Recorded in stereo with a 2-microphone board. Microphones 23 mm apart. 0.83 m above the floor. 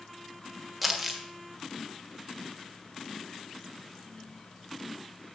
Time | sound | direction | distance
0.8 | crumpling | 5° right (ahead or behind) | 1.4 m